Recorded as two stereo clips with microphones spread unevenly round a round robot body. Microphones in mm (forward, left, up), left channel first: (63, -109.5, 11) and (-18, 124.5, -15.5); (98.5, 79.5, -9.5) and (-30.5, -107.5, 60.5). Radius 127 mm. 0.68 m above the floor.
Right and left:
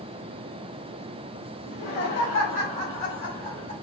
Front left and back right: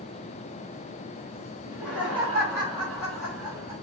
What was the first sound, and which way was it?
Laughter, 15° right.